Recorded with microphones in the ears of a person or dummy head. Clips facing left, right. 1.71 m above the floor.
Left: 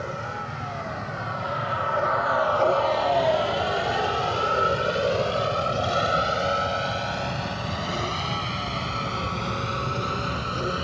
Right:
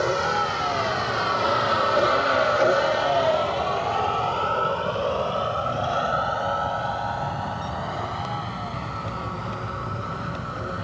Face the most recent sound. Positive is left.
turn(degrees=45)  # may be behind; listen again after turning